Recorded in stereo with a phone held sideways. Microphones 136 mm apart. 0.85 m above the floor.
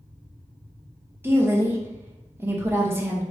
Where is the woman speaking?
15° right (ahead or behind), 0.6 m.